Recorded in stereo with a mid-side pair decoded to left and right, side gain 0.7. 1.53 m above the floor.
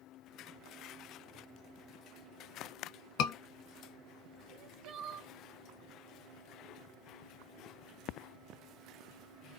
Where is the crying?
50° right, 0.6 m.